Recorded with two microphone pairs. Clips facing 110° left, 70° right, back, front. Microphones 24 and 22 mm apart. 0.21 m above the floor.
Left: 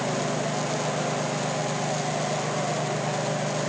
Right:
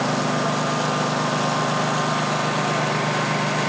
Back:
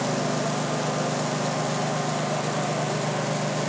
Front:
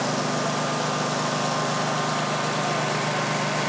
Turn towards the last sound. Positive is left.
turn(degrees=-55)